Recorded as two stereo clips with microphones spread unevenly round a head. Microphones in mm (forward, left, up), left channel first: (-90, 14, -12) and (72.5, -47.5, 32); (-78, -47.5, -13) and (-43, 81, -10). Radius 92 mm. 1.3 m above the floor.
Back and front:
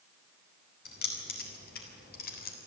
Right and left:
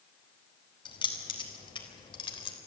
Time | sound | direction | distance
0.8 | keys jangling | 160° right | 4.5 m